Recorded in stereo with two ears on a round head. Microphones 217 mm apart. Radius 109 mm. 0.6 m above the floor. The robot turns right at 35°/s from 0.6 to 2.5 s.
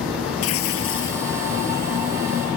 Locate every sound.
0.4 s tearing paper: 70° left (ahead or behind); by 1.3 s 45° left (ahead or behind)